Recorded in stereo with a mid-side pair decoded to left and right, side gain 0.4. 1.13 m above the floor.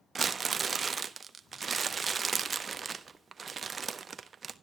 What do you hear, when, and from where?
0.1 s crumpling: 40° right, 0.8 m